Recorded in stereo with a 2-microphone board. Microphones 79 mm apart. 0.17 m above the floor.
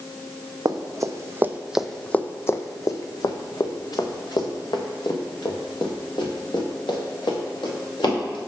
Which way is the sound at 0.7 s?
55° right (ahead or behind).